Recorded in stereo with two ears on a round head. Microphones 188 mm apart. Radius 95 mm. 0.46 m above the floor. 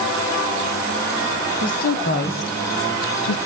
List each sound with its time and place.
1.6 s a woman speaking: 45° left (ahead or behind), 2.5 m; by 3.4 s 65° left (ahead or behind), 3 m